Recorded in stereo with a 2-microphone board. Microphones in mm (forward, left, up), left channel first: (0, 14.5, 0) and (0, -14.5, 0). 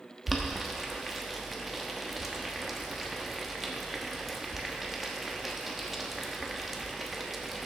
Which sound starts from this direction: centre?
Boiling, at 0.3 s.